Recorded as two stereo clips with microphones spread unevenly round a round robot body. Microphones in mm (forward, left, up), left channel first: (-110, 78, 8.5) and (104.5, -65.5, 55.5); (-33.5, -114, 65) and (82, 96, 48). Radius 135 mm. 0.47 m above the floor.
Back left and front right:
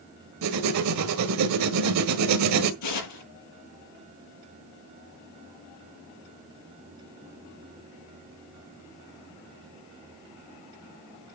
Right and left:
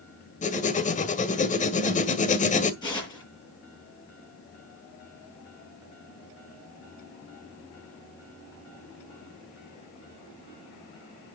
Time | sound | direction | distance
0.4 | writing | 60° right | 1.9 m
2.8 | tearing paper | 165° left | 8 m